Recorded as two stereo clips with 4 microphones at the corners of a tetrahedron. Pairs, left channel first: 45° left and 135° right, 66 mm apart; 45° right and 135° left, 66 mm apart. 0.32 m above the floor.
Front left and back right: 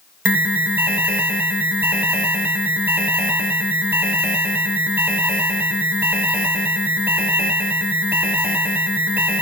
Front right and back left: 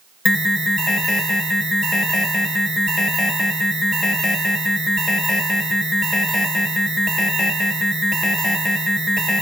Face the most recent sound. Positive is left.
turn(degrees=-125)